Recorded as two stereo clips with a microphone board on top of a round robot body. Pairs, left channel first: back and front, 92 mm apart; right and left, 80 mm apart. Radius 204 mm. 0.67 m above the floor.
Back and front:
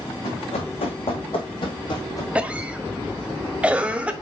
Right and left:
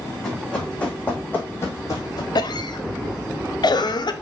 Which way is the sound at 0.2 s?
170° right.